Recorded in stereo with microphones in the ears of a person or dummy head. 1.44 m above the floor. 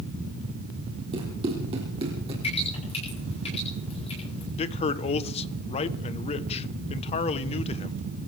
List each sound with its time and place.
1.1 s running footsteps: 25° right (ahead or behind), 3 m; by 2.3 s 30° right (ahead or behind), 4 m
2.4 s dripping: 30° left (ahead or behind), 9 m
4.6 s a man speaking: 40° left (ahead or behind), 1.0 m